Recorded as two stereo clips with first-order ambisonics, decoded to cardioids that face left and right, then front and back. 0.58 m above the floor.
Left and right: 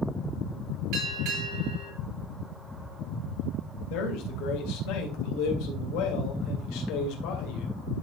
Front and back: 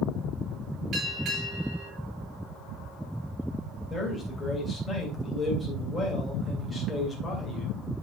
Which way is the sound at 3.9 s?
85° left.